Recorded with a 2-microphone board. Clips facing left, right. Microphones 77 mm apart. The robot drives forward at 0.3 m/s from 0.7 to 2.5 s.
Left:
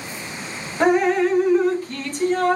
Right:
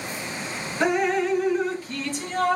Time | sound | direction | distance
0.8 | dripping | 50° left (ahead or behind) | 1.3 m